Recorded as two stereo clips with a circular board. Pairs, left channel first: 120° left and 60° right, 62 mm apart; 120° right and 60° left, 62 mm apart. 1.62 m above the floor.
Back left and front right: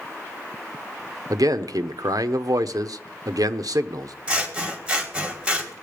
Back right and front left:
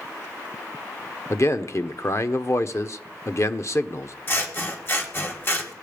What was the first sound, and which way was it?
A man speaking, 80° right.